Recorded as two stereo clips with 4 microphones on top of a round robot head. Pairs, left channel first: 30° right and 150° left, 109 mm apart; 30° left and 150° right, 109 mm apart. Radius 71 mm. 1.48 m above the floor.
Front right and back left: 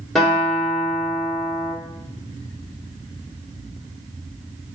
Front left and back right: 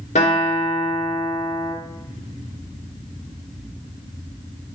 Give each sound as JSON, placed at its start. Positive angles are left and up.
{"t": 0.1, "sound": "a guitar", "azimuth_deg": 55, "distance_m": 3.0}